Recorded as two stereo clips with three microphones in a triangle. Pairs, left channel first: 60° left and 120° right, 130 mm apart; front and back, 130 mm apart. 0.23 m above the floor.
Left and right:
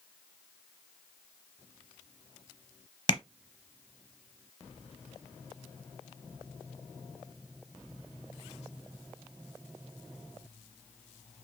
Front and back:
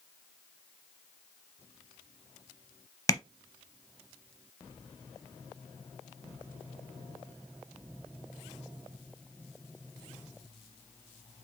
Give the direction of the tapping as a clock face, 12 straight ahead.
10 o'clock.